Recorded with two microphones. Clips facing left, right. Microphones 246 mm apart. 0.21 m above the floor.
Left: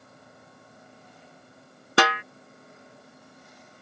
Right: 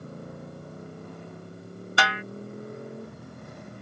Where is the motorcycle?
60° right (ahead or behind).